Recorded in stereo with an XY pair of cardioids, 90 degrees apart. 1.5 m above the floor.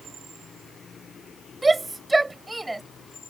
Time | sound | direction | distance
1.6 | a shout | 25° right | ?